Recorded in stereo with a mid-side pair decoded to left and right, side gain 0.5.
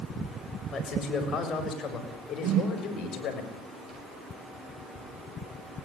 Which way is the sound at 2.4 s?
70° right.